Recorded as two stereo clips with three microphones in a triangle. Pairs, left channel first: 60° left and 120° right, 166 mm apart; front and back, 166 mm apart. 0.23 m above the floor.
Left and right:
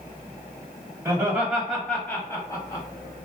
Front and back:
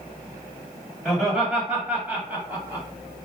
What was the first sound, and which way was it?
Laughter, 90° right.